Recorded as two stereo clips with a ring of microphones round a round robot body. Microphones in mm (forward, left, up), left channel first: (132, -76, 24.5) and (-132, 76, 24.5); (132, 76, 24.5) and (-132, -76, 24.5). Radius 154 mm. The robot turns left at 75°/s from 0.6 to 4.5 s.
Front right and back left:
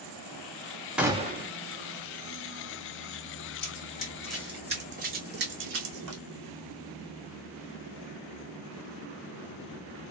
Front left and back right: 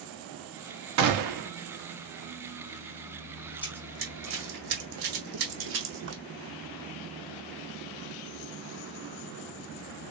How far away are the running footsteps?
About 1.8 m.